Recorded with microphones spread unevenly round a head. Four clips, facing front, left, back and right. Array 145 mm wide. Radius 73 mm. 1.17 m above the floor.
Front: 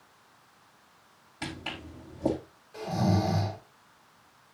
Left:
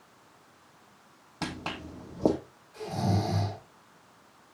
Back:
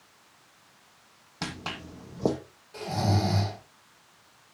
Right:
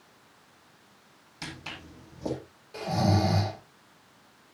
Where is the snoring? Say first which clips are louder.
Right 4 dB, front 1 dB; 110° right, 4 m.